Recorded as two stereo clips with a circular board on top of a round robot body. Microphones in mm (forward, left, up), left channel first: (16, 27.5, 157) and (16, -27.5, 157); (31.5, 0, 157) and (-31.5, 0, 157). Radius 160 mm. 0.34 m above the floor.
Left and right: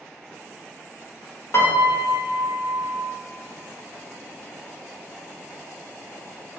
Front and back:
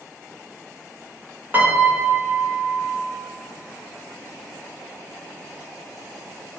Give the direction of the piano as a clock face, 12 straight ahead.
8 o'clock.